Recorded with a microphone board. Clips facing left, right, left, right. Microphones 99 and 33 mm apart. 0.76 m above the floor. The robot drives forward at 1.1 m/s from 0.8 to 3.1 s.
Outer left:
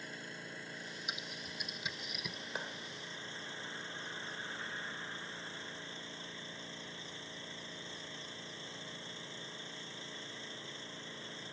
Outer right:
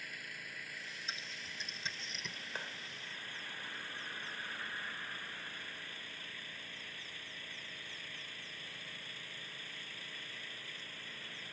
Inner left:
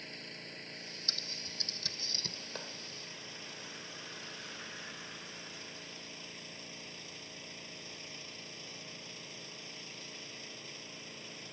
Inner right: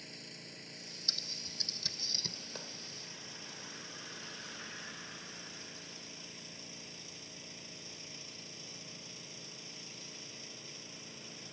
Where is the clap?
15° left (ahead or behind); by 2.8 s 20° left (ahead or behind).